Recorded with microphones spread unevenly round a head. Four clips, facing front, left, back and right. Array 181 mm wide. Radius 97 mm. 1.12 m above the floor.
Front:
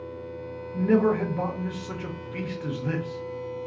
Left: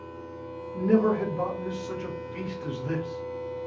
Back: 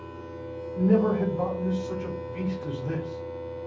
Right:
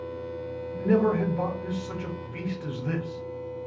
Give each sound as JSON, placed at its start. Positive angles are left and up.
{"t": 0.7, "sound": "a man speaking", "azimuth_deg": -10, "distance_m": 1.2}